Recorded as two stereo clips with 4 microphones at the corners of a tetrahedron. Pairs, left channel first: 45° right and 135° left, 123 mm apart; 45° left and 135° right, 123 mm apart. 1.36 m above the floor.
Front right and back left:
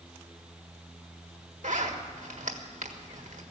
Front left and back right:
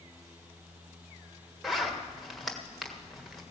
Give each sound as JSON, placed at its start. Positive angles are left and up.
{"t": 1.6, "sound": "a zipper", "azimuth_deg": 135, "distance_m": 1.4}